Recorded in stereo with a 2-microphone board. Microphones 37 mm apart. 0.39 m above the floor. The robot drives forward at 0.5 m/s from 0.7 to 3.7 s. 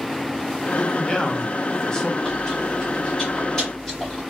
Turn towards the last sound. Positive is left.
turn(degrees=15)  # may be behind; listen again after turning